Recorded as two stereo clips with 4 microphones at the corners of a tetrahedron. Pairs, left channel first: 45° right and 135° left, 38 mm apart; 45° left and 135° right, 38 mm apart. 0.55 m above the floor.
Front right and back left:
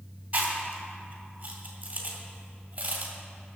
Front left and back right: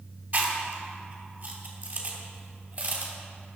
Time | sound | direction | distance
0.3 | chewing | 170° right | 2.5 m